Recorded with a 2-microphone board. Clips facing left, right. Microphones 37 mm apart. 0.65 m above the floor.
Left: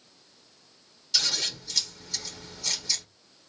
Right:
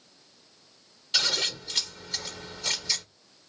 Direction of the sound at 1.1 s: 40° right (ahead or behind).